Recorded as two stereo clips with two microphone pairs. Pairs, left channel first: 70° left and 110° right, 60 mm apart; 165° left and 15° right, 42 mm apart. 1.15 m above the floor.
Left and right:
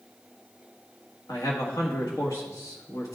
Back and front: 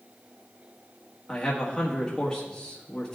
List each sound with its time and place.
1.3 s a man speaking: 95° left, 1.5 m